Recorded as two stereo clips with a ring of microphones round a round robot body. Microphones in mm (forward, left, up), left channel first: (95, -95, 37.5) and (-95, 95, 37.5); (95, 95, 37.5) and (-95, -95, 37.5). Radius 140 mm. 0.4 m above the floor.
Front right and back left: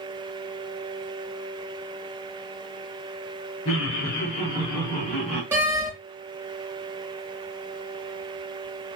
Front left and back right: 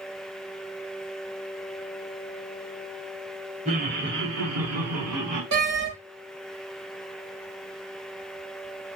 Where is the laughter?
75° right, 2 m; by 5.4 s 135° right, 3 m.